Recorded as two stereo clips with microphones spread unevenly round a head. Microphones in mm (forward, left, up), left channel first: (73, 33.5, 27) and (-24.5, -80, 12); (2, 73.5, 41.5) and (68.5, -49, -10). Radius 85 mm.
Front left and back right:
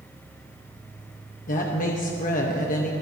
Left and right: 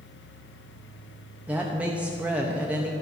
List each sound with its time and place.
0.0 s a fan: 130° left, 0.9 m
1.5 s a woman speaking: 15° left, 1.1 m